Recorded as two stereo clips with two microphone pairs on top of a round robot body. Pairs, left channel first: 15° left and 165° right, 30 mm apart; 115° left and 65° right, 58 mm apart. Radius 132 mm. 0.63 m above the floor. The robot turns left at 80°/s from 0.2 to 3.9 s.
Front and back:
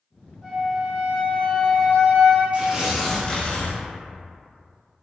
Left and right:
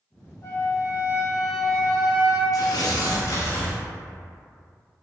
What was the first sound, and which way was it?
A flute, 115° left.